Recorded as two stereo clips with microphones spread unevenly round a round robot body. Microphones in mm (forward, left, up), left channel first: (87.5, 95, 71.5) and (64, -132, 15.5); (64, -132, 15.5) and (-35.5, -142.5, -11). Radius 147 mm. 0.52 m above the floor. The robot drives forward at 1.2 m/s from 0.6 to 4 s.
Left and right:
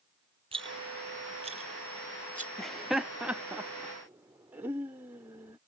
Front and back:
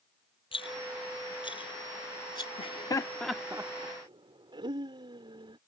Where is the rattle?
25° right; by 2.5 s 35° right.